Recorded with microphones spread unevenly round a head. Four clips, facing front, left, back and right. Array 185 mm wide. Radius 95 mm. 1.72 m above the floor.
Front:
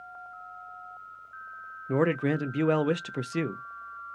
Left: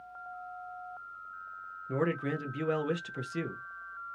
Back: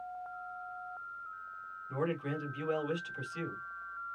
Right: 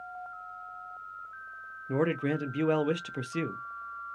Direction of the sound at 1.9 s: 15° right.